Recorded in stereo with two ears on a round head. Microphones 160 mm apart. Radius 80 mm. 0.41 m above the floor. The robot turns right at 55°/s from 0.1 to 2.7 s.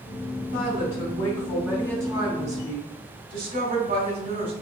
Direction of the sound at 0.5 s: 115° left.